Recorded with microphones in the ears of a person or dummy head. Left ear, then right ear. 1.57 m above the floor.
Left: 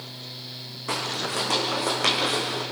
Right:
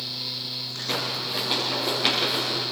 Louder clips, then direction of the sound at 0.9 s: Left 1 dB; 50° left (ahead or behind).